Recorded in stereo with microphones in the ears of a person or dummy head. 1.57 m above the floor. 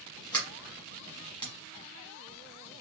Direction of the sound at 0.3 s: 20° left (ahead or behind).